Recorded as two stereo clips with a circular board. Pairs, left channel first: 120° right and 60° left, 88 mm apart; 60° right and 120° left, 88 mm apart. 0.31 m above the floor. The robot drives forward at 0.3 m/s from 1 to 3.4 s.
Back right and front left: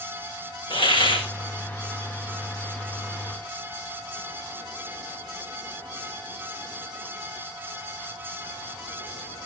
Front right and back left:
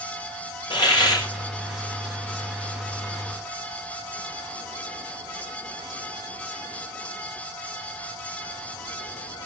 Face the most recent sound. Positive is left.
turn(degrees=-110)